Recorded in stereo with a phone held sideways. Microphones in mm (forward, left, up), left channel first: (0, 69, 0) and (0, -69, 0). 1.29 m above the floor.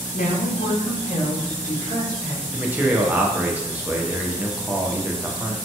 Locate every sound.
0.1 s a woman speaking: 85° left, 0.5 m; by 2.4 s 55° left (ahead or behind), 1.6 m
2.5 s a man speaking: 10° right (ahead or behind), 0.5 m